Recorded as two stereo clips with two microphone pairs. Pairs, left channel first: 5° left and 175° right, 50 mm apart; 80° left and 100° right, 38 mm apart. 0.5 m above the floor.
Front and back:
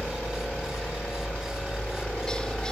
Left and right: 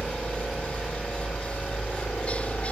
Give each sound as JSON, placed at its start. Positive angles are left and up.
{"t": 0.0, "sound": "a helicopter", "azimuth_deg": 55}